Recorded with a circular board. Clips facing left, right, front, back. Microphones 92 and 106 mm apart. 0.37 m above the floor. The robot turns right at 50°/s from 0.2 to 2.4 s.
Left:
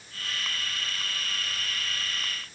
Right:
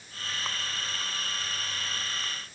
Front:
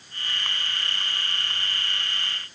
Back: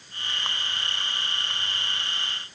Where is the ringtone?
No ringtone in this recording.